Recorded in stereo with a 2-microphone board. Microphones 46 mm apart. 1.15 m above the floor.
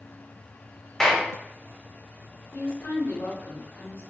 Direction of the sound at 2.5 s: 75° left (ahead or behind).